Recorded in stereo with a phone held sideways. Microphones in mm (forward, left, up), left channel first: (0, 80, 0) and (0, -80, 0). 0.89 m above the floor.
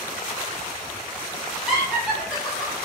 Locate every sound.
1.7 s laughter: 5° right (ahead or behind), 1.7 m